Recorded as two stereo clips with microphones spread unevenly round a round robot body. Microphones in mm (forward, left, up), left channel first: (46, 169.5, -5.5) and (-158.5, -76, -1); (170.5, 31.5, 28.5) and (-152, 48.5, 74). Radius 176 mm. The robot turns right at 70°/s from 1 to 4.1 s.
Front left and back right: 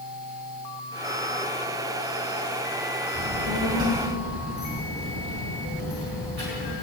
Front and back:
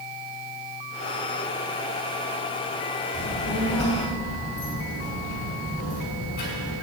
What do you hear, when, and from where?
3.1 s a child speaking: 135° right, 5.5 m; by 6.7 s 70° right, 5.5 m